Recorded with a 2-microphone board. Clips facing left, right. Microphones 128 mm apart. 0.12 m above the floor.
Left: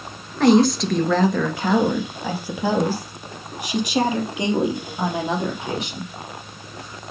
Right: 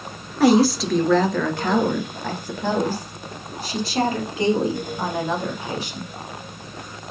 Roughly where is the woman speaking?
Centre.